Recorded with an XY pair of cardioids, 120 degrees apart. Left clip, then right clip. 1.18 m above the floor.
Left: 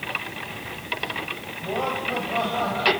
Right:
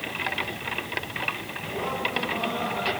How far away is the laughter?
About 7.5 m.